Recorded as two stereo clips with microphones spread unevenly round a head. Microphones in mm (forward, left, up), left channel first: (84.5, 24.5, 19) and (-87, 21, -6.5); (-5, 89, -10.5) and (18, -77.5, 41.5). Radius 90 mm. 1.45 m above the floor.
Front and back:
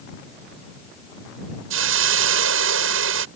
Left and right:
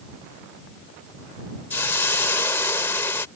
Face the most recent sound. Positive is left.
turn(degrees=175)